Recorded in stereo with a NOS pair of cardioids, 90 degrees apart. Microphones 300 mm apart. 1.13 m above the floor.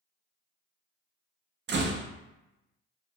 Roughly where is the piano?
I don't hear a piano.